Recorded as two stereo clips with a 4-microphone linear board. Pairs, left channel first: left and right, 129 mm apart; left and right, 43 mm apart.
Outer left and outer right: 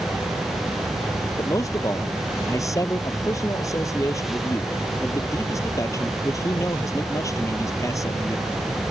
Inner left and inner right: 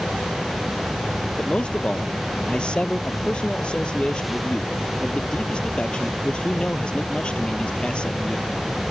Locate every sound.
1.4 s a man speaking: 25° left (ahead or behind)